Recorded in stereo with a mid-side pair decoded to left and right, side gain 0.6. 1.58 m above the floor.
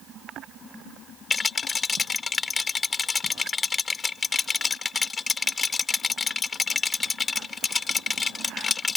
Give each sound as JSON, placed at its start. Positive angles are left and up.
{"t": 1.3, "sound": "a rattle", "azimuth_deg": 30}